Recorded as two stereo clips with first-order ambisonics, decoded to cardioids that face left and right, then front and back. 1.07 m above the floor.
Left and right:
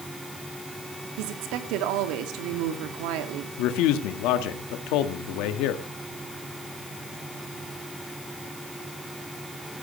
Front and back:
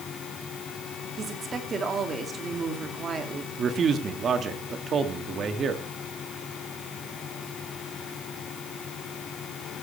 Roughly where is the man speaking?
Behind left.